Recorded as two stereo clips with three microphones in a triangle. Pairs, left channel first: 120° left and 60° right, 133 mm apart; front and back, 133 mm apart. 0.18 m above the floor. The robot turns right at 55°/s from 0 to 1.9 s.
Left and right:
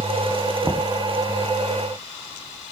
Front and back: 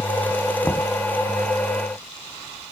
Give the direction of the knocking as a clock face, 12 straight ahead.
2 o'clock.